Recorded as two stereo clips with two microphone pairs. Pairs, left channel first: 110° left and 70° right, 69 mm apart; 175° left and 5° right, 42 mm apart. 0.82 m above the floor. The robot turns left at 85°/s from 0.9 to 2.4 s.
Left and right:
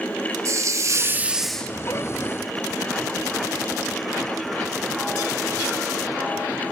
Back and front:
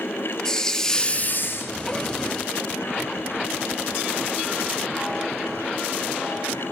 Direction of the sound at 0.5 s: 110° right.